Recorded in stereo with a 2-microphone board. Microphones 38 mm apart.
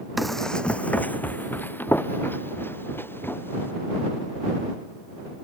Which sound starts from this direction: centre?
Running footsteps, at 0.2 s.